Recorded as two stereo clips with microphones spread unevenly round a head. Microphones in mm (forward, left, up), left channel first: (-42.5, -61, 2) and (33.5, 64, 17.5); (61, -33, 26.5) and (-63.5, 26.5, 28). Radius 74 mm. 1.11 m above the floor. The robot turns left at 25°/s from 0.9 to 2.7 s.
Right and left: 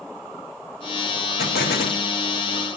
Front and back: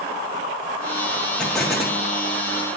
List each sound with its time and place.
1.4 s an explosion: 110° right, 1.6 m; by 2.0 s 125° right, 1.6 m